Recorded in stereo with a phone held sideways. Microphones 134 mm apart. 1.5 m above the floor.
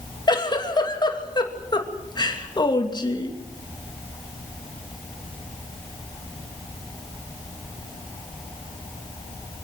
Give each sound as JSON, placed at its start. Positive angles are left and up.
{"t": 0.3, "sound": "a giggle", "side_deg": 35, "distance_m": 2.5}